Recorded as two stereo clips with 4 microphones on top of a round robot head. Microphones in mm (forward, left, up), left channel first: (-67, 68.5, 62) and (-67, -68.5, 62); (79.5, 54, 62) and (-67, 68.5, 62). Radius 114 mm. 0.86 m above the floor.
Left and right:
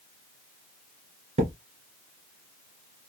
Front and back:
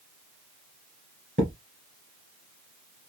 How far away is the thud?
About 1.7 m.